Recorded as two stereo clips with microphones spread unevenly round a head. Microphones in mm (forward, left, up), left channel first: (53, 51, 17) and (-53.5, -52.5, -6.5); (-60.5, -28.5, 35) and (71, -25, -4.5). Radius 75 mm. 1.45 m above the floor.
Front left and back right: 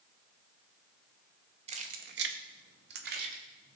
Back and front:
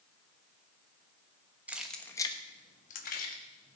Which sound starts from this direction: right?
Keys jangling, at 1.7 s.